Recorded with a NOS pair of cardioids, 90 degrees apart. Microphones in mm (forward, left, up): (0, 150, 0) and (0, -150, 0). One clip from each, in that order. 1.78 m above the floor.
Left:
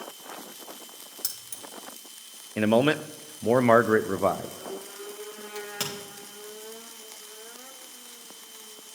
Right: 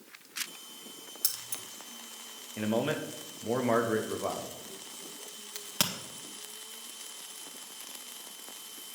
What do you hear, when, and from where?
1.2 s keys jangling: 10° right, 2 m
2.6 s a man speaking: 50° left, 0.6 m
5.5 s a crack: 40° right, 1.9 m